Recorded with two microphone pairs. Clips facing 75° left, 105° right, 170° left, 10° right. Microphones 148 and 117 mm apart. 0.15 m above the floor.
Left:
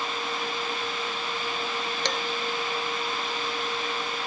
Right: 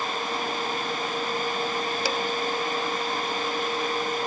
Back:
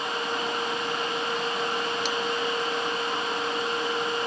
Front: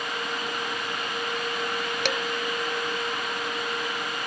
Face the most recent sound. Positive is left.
turn(degrees=-20)